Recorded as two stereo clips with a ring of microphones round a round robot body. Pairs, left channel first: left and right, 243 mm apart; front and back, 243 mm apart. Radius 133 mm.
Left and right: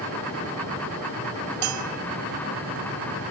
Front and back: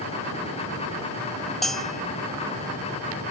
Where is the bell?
90° right.